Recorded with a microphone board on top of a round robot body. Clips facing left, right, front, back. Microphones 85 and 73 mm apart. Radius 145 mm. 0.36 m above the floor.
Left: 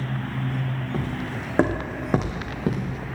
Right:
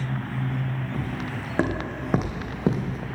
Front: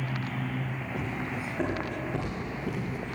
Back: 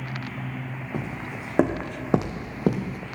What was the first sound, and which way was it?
Footsteps, 155° left.